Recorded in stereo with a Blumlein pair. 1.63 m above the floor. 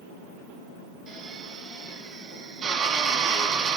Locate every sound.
1.1 s a drill: 25° right, 2.5 m